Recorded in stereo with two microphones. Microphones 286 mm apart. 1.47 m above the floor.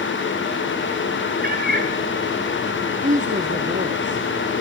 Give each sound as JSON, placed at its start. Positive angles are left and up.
{"t": 1.4, "sound": "a cat meowing", "side_deg": -35, "distance_m": 1.6}
{"t": 3.0, "sound": "a woman speaking", "side_deg": -25, "distance_m": 1.2}